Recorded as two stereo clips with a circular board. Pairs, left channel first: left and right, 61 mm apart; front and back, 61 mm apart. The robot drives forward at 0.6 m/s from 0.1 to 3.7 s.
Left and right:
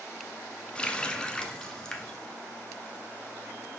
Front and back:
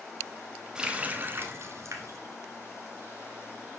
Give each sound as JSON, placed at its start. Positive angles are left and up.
{"t": 0.8, "sound": "a running tap", "azimuth_deg": 125, "distance_m": 0.7}